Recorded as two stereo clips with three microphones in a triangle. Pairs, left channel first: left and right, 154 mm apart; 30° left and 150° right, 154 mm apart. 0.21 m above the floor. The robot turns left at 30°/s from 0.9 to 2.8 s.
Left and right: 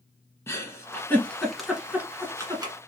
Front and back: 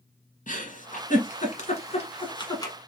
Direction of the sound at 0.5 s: 20° left.